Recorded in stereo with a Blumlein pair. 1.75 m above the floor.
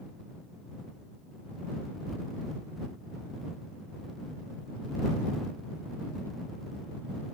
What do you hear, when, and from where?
Only background noise.